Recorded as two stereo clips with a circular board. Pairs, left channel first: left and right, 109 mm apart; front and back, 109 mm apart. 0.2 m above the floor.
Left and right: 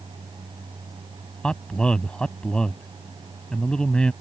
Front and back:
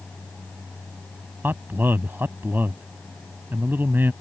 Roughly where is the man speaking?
Behind left.